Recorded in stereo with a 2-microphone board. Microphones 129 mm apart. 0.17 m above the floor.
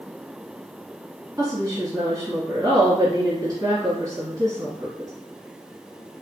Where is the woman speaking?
25° right (ahead or behind), 1.3 m.